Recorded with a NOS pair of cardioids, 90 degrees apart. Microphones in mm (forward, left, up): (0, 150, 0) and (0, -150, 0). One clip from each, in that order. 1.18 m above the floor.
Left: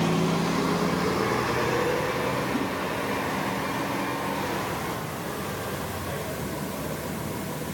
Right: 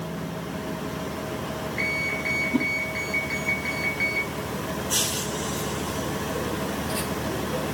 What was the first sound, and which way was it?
A whoosh, 55° right.